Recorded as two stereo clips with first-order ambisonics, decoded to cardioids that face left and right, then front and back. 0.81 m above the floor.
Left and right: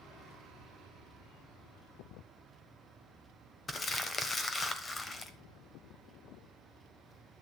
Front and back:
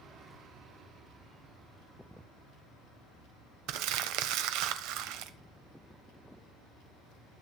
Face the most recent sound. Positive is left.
turn(degrees=160)